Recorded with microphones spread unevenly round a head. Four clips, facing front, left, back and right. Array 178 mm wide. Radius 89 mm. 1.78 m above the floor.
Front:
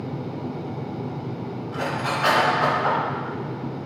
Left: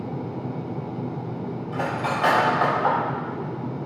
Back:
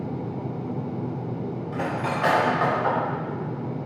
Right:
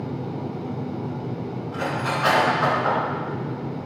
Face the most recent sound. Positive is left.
turn(degrees=130)